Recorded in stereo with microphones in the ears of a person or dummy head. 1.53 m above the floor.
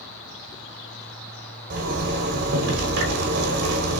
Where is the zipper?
60° right (ahead or behind), 1.3 m.